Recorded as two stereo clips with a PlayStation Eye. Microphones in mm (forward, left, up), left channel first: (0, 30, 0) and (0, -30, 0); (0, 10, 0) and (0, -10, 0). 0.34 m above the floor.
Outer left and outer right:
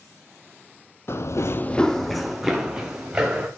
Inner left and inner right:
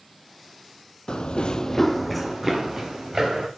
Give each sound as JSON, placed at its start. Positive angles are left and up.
{"t": 1.1, "sound": "running footsteps", "side_deg": 45, "distance_m": 0.7}